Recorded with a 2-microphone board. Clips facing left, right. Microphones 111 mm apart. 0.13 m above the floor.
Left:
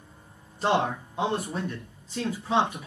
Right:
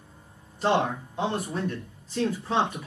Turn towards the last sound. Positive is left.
turn(degrees=10)  # may be behind; listen again after turning